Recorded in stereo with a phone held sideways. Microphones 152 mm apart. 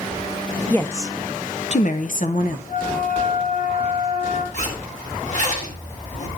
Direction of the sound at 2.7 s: 65° left (ahead or behind).